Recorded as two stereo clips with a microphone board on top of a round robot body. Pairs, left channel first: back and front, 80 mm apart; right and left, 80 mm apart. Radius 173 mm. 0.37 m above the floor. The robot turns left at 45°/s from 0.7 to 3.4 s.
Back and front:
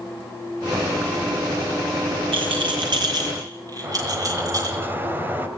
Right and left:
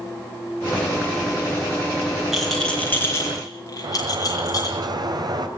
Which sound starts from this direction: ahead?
A rattle, at 2.3 s.